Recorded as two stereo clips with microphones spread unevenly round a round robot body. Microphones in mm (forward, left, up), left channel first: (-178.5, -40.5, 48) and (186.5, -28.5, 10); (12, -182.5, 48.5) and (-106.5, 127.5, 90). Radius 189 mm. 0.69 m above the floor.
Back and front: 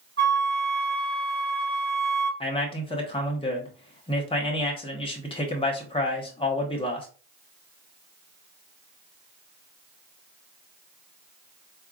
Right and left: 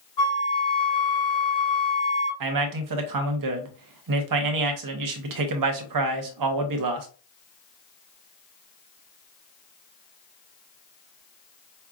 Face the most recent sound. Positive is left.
turn(degrees=105)